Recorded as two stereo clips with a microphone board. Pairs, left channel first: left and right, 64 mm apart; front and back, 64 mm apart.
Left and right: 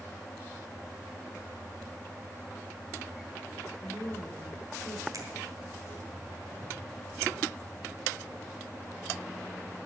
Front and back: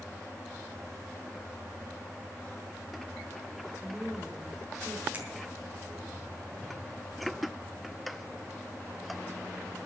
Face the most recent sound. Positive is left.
turn(degrees=-115)